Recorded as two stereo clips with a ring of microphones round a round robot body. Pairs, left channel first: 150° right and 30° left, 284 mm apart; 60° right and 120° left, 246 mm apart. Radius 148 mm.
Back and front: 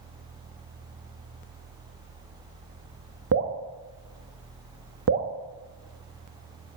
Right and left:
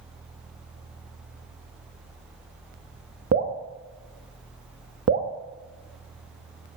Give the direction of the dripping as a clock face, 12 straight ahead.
10 o'clock.